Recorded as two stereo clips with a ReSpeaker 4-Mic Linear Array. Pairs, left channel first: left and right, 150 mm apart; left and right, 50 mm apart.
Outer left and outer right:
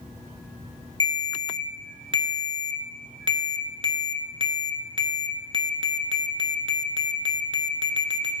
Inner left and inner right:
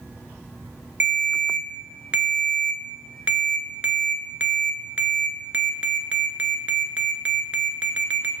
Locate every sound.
1.0 s a ringtone: 35° right (ahead or behind), 0.7 m